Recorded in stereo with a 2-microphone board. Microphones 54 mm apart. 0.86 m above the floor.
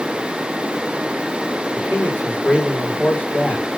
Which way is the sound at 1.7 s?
30° left (ahead or behind).